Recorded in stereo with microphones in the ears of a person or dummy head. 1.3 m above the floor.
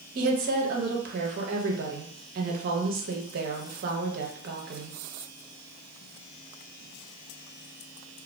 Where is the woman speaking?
45° right (ahead or behind), 0.6 m.